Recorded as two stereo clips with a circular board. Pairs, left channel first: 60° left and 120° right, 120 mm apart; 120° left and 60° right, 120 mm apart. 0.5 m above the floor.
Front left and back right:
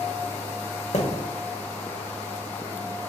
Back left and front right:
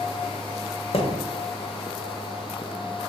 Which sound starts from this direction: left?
A thud, at 0.9 s.